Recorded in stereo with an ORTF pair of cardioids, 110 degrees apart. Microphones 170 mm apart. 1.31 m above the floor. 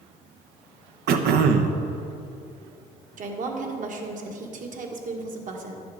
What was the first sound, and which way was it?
Throat clearing, 65° right.